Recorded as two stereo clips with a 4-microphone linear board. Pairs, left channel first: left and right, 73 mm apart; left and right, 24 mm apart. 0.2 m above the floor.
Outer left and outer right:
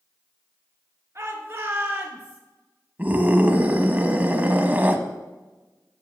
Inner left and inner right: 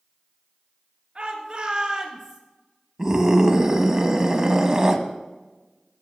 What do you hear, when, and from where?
1.1 s a shout: 35° right (ahead or behind), 3 m; by 2.4 s 15° right (ahead or behind), 3 m
3.0 s a scream: 20° right (ahead or behind), 1.0 m